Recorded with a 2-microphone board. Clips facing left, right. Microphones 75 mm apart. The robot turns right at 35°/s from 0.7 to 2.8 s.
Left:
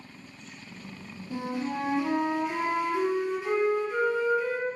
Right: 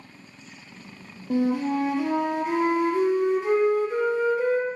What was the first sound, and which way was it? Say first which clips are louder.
A flute: right 8 dB; 100° right.